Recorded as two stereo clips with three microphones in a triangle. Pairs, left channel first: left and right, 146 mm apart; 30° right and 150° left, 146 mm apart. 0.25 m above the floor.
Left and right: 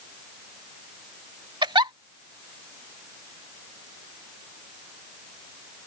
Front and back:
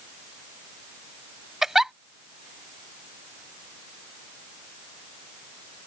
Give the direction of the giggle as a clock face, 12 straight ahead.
4 o'clock.